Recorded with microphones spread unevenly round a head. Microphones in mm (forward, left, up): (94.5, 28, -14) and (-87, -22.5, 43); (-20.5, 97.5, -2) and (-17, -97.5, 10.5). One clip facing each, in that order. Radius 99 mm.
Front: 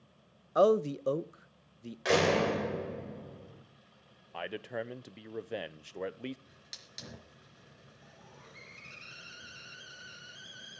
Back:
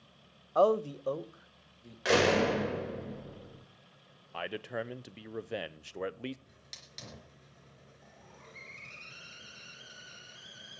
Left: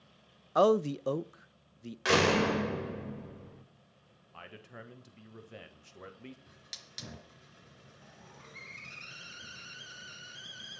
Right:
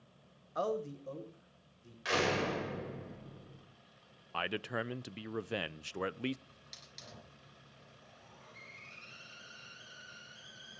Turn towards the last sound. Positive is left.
turn(degrees=100)